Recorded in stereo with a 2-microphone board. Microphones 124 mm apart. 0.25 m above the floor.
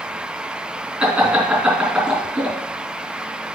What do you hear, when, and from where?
1.0 s laughter: 5° right (ahead or behind), 3 m